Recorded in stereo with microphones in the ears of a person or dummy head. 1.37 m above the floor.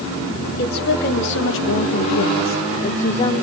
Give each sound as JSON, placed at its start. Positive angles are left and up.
{"t": 0.6, "sound": "a woman speaking", "side_deg": 60, "distance_m": 2.5}